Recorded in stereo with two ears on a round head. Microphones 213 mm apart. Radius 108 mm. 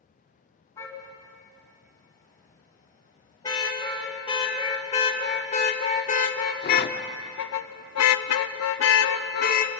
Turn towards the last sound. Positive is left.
turn(degrees=35)  # may be behind; listen again after turning